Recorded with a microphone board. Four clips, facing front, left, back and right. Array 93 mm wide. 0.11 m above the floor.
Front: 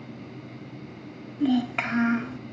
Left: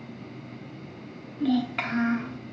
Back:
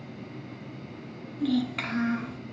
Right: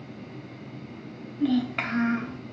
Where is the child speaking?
20° right, 0.9 m.